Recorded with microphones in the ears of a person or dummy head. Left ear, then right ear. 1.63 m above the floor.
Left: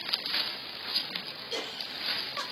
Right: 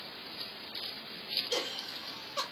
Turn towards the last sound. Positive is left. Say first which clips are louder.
# even
turn(degrees=-45)  # may be behind; listen again after turning